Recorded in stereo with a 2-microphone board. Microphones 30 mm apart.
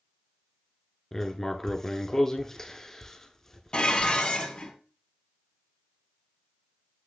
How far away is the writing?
About 0.7 m.